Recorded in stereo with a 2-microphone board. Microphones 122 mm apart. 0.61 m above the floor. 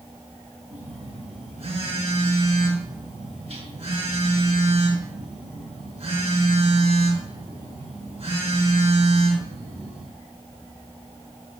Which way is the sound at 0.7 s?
55° right (ahead or behind).